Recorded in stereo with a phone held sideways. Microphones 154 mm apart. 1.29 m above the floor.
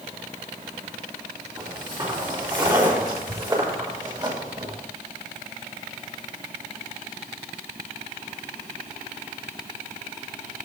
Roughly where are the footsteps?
Right.